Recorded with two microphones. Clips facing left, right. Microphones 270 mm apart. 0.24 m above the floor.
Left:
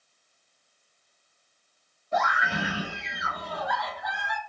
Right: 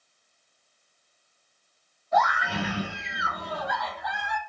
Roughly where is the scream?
Left.